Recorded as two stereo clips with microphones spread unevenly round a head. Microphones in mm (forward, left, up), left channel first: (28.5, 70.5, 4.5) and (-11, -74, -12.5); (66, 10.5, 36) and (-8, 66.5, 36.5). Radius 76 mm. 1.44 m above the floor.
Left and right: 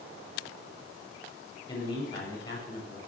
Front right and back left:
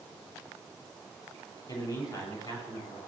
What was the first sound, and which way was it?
A man speaking, 15° left.